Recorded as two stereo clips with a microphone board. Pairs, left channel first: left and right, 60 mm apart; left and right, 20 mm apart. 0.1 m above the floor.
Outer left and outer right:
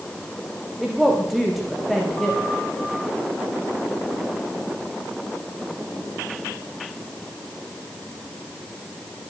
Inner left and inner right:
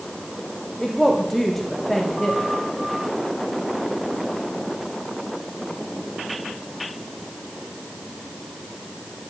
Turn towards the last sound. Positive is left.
turn(degrees=0)  # may be behind; listen again after turning